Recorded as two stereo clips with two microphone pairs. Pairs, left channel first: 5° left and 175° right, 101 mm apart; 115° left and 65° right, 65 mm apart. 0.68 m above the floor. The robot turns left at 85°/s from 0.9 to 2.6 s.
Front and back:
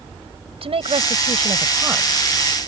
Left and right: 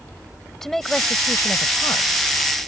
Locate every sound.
0.6 s a woman speaking: 160° right; by 2.1 s 100° left